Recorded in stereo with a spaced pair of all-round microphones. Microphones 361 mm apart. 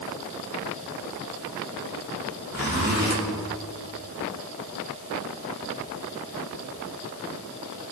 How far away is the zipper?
About 3.5 m.